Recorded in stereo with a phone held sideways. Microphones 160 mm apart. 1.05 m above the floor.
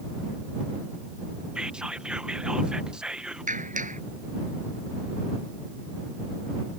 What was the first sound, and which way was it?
Whispering, 5° right (ahead or behind).